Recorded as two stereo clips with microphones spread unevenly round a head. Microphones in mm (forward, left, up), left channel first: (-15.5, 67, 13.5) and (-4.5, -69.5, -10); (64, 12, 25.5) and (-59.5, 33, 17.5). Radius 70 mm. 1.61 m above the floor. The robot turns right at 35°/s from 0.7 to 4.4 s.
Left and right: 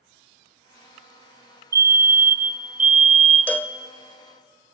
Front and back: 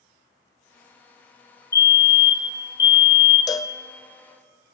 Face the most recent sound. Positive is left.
turn(degrees=65)